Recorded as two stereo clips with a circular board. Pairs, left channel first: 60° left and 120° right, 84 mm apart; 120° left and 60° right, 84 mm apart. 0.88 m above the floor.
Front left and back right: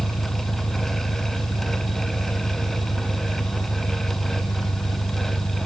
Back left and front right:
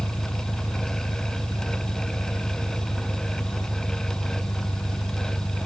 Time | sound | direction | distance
0.0 | an engine running | 55° left | ?